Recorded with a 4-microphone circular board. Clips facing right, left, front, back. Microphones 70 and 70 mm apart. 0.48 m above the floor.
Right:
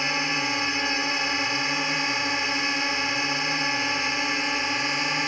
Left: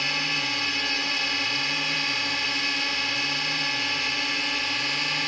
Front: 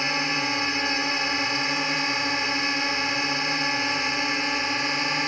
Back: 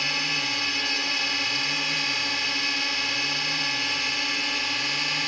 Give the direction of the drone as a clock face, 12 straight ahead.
1 o'clock.